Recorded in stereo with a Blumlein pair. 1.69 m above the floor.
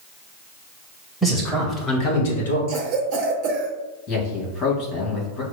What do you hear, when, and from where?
1.2 s a man speaking: 5° right, 1.9 m; by 2.6 s 75° left, 1.3 m
2.7 s a cough: 40° right, 0.7 m
4.1 s a man speaking: 30° left, 2 m